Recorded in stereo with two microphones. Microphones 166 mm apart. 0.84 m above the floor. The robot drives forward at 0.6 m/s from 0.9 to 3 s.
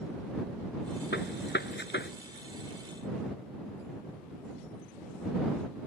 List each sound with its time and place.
1.1 s a gunshot: 90° left; by 2.1 s 85° left